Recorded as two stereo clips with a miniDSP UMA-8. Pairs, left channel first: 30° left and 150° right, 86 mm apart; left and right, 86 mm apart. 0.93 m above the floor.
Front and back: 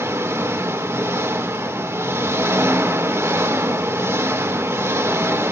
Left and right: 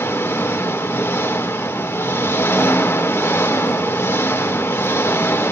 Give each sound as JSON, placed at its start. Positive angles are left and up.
{"t": 0.0, "sound": "an engine running", "azimuth_deg": 150, "distance_m": 1.7}